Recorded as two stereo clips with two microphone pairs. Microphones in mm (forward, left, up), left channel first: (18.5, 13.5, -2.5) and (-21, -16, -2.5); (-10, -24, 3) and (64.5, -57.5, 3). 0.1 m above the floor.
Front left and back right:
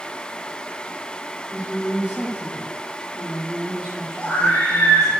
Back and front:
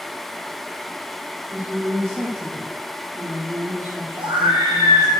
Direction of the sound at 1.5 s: 75° right.